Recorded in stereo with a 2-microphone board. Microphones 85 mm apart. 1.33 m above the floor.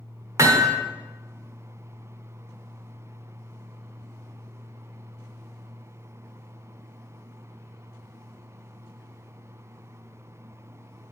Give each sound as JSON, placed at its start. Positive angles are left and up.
{"t": 0.4, "sound": "hammering", "side_deg": -35, "distance_m": 1.3}